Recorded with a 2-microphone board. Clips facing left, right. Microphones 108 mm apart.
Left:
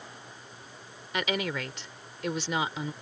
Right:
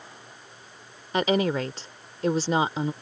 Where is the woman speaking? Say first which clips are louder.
Right 8 dB; 35° right (ahead or behind).